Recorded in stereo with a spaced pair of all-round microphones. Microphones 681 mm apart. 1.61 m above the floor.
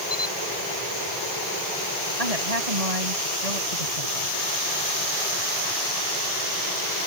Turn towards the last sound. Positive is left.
turn(degrees=-60)  # may be behind; listen again after turning